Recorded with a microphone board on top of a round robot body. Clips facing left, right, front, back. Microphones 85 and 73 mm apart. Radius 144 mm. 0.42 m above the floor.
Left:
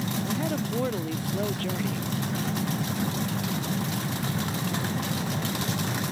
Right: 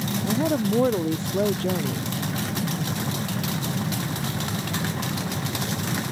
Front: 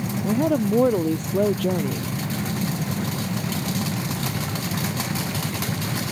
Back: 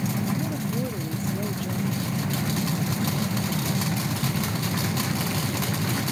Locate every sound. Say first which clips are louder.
0.2 s a woman speaking: right 6 dB, front 8 dB; 25° right